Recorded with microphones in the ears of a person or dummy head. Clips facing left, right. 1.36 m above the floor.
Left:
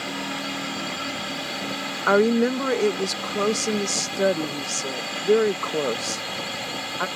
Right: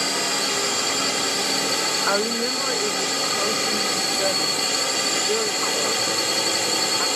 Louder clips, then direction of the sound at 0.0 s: Right 3 dB; 70° right (ahead or behind).